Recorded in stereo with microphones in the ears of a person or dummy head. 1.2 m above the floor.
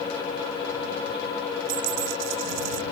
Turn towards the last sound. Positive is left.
turn(degrees=-65)  # may be behind; listen again after turning